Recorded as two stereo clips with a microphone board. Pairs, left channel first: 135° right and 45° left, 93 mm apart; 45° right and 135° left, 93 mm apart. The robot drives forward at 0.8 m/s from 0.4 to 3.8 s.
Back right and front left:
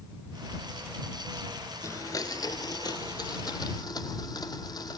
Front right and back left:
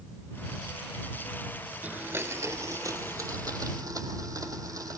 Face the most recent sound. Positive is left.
turn(degrees=-175)